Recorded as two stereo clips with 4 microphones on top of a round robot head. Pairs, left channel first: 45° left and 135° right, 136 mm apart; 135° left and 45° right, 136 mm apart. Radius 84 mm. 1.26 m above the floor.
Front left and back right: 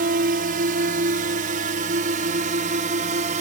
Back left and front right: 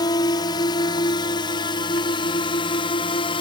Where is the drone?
160° right; by 3.4 s 170° right.